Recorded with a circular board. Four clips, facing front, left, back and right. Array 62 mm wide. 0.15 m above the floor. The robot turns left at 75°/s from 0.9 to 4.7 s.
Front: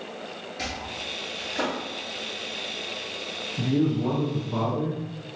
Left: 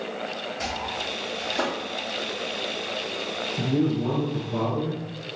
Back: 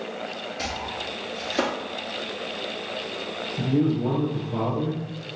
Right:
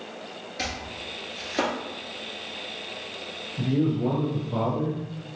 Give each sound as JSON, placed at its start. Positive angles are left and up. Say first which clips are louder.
{"t": 0.6, "sound": "chopping", "louder": "left 2 dB, back 2 dB", "azimuth_deg": -90, "distance_m": 1.3}
{"t": 3.6, "sound": "a man speaking", "louder": "even, back 1 dB", "azimuth_deg": 60, "distance_m": 1.3}